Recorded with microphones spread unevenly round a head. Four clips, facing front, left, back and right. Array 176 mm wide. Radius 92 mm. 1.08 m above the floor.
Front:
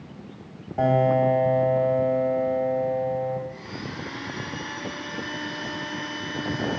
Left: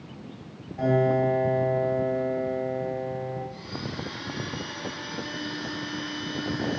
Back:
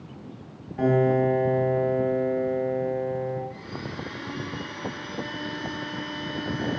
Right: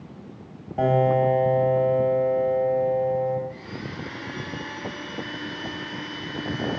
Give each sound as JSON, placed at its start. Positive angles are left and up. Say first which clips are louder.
{"t": 0.8, "sound": "a piano", "louder": "right 3 dB, front 1 dB", "azimuth_deg": -40, "distance_m": 2.5}
{"t": 3.5, "sound": "a blender", "louder": "even, even", "azimuth_deg": -30, "distance_m": 3.0}